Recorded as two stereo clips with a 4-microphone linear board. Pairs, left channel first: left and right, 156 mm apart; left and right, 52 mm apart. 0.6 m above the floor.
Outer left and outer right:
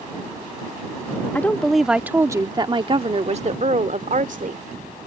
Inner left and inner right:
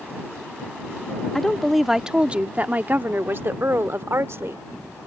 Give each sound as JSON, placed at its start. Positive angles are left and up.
{"t": 1.4, "sound": "a woman speaking", "side_deg": 10}